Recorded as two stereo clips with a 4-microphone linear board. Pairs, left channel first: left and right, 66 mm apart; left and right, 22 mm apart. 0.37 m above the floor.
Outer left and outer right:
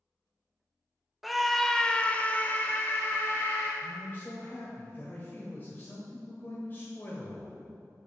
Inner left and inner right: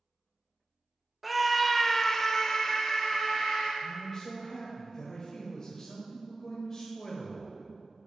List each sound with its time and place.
1.2 s a scream: 5° right (ahead or behind), 0.9 m; by 3.7 s 35° left (ahead or behind), 1.4 m
3.8 s a man speaking: 30° left (ahead or behind), 1.4 m